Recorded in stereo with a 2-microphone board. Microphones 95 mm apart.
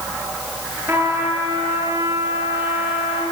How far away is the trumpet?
About 7 m.